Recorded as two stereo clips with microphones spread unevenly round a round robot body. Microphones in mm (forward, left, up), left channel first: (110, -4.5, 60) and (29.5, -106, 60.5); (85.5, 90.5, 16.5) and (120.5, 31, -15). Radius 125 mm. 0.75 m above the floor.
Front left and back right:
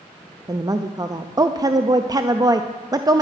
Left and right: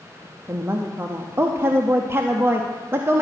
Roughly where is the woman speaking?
Right.